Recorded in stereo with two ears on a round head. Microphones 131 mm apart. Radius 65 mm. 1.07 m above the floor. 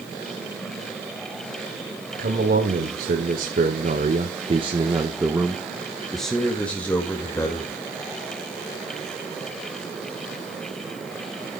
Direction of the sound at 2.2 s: 65° right (ahead or behind).